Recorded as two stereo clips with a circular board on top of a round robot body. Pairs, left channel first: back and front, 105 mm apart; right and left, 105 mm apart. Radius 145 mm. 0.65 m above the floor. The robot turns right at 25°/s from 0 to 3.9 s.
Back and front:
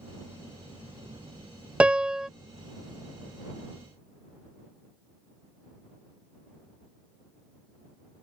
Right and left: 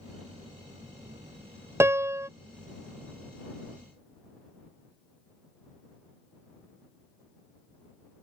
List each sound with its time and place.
1.8 s a piano: 65° left; by 2.3 s 80° left